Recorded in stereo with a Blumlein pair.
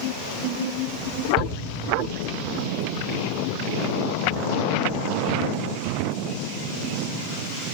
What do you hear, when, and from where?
1.4 s a shout: 15° right, 6.5 m